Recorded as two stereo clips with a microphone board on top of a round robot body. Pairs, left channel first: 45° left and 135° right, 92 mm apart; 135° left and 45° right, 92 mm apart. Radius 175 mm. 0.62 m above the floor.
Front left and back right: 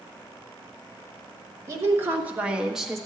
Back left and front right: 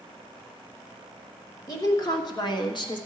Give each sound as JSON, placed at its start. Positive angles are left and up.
{"t": 1.7, "sound": "a woman speaking", "azimuth_deg": 175, "distance_m": 1.9}